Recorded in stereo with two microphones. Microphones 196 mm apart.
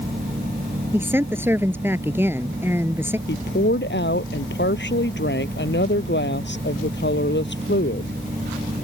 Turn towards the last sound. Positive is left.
turn(degrees=65)  # may be behind; listen again after turning